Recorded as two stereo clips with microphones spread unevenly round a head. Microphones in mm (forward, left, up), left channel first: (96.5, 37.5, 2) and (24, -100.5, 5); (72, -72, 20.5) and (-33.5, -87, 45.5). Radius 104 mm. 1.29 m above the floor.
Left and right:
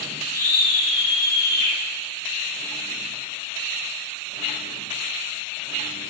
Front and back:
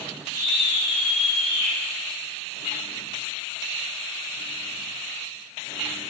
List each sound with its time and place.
0.3 s a scream: 40° left, 8 m